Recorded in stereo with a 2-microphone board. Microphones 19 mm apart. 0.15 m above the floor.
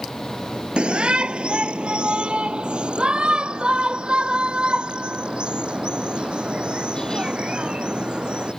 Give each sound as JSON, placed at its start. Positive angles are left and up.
{"t": 0.8, "sound": "a shout", "side_deg": -60}